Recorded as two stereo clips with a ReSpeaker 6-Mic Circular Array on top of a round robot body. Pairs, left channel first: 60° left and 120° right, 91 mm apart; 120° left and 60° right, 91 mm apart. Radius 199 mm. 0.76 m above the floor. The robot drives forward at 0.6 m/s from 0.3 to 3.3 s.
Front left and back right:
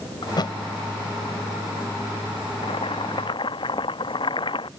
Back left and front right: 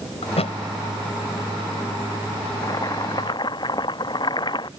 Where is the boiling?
70° left; by 4.7 s 85° left.